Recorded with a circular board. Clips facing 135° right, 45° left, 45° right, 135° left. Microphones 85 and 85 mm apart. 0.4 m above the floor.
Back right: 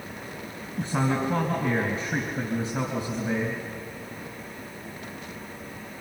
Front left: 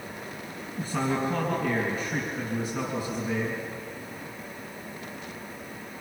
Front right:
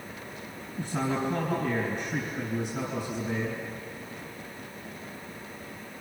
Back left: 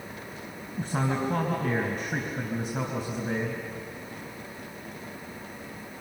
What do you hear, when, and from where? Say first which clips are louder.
0.8 s a man speaking: back right 2 dB, back left 1 dB; 160° left, 3.5 m